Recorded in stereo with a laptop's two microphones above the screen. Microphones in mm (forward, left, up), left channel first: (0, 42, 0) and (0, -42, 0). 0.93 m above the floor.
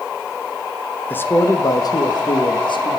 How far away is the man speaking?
About 0.6 m.